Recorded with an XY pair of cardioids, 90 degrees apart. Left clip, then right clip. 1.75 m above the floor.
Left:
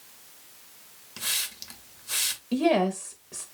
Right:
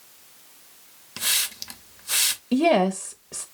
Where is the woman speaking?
40° right, 0.6 m.